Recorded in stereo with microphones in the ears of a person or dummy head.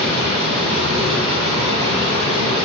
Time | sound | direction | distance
0.0 | running water | 20° right (ahead or behind) | 1.6 m